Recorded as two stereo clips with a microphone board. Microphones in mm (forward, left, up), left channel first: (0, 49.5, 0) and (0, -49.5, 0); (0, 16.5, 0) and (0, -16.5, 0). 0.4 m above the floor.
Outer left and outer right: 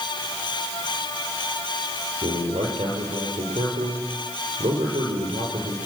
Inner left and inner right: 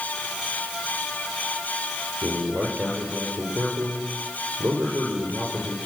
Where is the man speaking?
80° right, 7.5 m.